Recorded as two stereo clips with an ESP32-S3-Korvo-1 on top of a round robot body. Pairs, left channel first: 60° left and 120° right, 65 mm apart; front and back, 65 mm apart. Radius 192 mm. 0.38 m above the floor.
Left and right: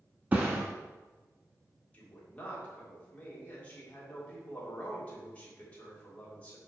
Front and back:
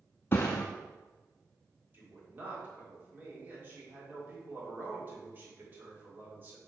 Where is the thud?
55° right, 0.6 m.